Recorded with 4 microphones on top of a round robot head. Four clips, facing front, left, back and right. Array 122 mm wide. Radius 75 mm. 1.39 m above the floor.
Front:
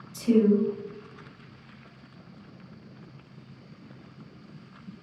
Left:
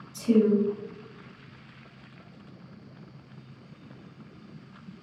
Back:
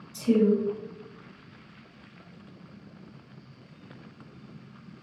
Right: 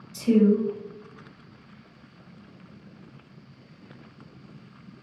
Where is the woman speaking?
85° right, 1.2 m.